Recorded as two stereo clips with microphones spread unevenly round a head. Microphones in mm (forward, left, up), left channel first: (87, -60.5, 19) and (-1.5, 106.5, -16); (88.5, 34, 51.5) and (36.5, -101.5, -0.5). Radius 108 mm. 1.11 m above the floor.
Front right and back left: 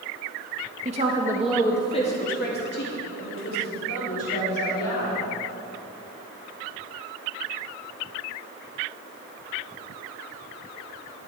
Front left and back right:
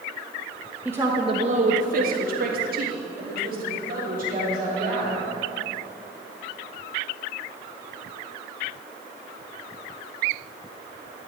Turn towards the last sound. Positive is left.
turn(degrees=-90)